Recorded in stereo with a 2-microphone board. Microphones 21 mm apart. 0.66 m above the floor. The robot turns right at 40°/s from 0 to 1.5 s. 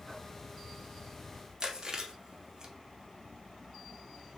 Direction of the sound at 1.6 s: 30° right (ahead or behind).